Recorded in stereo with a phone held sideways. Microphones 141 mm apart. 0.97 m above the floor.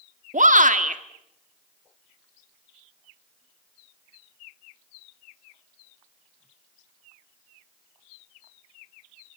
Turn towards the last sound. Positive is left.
turn(degrees=-65)  # may be behind; listen again after turning